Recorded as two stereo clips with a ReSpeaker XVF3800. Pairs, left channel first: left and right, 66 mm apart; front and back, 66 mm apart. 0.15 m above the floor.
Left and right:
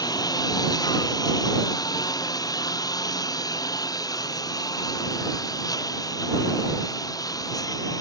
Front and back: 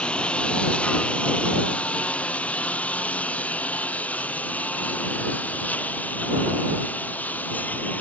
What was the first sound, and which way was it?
A lawn mower, 70° left.